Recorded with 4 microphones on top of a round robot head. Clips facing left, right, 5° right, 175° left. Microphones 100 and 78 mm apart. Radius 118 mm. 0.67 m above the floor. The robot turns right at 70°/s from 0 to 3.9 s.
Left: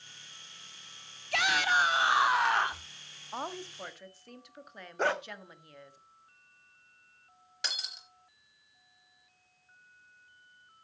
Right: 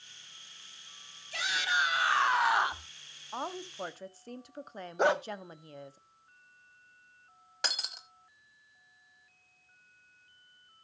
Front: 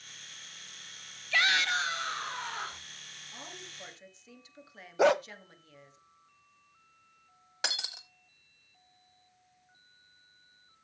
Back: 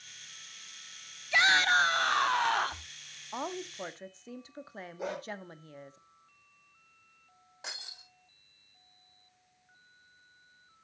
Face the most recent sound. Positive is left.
turn(degrees=-35)